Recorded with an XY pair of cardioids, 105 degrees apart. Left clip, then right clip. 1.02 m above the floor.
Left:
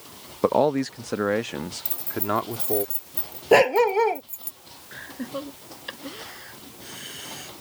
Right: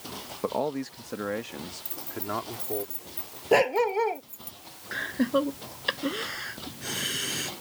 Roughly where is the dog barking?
Ahead left.